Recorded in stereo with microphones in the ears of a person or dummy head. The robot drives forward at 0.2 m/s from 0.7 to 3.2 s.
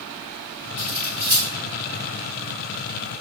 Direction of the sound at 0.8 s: 25° right (ahead or behind).